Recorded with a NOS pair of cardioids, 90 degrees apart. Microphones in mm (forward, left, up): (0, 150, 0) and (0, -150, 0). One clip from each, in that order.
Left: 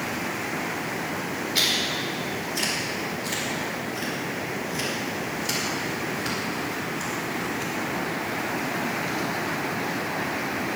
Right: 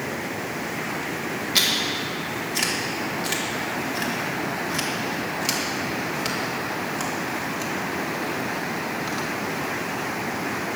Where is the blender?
I don't hear a blender.